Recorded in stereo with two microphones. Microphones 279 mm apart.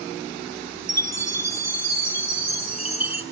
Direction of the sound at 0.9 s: 65° right (ahead or behind).